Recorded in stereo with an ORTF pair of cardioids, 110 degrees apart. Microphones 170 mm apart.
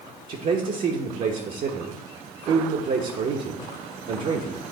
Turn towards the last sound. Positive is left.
turn(degrees=-55)